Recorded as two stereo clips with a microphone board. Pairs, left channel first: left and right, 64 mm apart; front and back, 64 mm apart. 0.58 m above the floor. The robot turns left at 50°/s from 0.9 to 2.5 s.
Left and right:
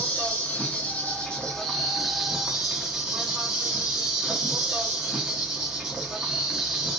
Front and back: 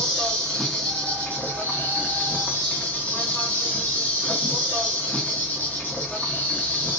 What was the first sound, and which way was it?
An insect, 55° left.